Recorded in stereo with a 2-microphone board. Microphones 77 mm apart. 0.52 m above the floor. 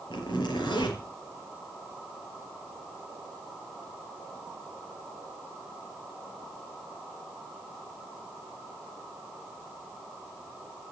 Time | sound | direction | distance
0.1 | a zipper | 70° left (ahead or behind) | 5 m